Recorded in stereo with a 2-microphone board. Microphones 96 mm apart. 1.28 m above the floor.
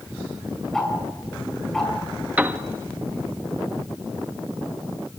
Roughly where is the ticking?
Centre.